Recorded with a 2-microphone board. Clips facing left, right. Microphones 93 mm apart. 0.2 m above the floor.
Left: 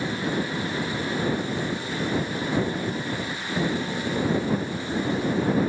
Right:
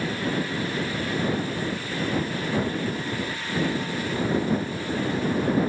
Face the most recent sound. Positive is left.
No sound to turn to.